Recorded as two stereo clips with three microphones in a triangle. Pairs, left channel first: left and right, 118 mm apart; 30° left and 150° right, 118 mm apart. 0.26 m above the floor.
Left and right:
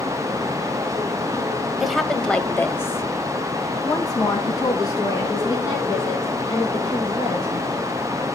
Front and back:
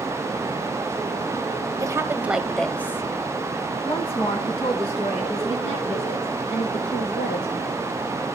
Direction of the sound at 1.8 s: 175° right.